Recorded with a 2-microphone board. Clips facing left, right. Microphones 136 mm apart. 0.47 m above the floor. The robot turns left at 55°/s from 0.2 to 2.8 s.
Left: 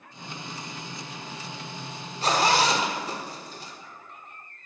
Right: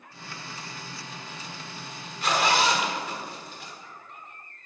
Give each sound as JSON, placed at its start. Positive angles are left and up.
{"t": 2.2, "sound": "a zipper", "side_deg": 40, "distance_m": 1.3}